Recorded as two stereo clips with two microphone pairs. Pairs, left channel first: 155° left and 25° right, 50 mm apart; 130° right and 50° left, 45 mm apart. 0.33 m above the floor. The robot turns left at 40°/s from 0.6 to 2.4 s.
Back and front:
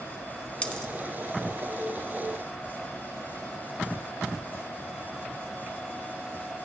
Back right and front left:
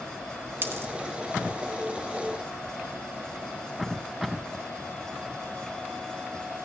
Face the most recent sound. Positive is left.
turn(degrees=15)